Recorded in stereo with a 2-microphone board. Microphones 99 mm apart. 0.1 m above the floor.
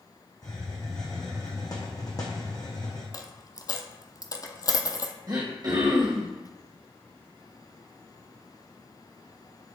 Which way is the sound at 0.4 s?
40° left (ahead or behind).